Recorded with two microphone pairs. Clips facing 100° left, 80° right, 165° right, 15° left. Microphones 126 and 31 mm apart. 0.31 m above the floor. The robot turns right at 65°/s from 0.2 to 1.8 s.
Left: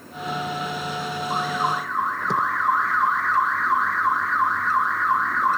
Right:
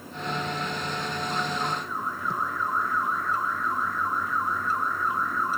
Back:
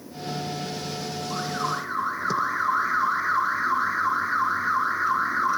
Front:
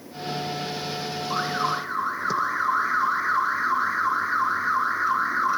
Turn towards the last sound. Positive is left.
turn(degrees=100)